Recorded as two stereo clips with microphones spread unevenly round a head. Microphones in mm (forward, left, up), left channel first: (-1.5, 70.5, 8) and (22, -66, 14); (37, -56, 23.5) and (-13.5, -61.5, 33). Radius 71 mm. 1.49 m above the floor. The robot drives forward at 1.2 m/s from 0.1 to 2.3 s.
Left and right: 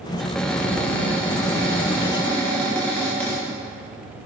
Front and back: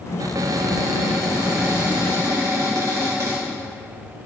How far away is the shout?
No shout in this recording.